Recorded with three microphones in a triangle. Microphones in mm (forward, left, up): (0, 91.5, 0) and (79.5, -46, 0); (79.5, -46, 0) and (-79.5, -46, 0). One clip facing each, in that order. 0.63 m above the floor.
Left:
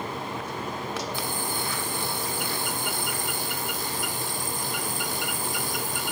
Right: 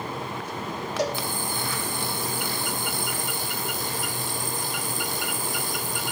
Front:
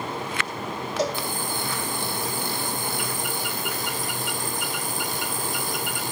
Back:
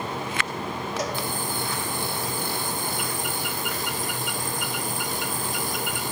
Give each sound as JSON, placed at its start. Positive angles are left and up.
{"t": 1.0, "sound": "a cowbell", "azimuth_deg": -60, "distance_m": 2.5}